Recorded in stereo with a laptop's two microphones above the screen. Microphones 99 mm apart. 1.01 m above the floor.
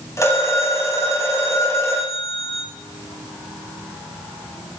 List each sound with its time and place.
0.2 s a phone ringing: 30° left (ahead or behind), 5 m